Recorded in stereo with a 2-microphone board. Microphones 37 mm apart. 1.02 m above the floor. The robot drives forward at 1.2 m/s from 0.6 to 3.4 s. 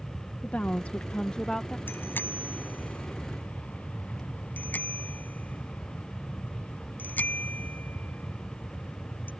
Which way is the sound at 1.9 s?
65° left (ahead or behind).